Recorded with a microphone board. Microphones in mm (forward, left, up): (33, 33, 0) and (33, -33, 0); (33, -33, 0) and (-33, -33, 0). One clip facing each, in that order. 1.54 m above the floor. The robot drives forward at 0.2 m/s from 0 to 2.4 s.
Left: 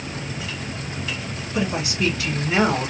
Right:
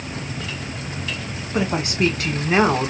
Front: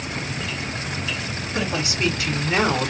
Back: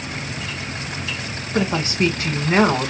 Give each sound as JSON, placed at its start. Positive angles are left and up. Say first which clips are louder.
{"t": 1.5, "sound": "a woman speaking", "louder": "right 3 dB, back 5 dB", "azimuth_deg": -130, "distance_m": 1.3}